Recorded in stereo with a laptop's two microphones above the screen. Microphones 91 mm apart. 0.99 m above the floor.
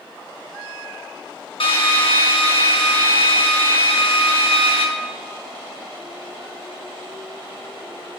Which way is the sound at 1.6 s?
70° left (ahead or behind).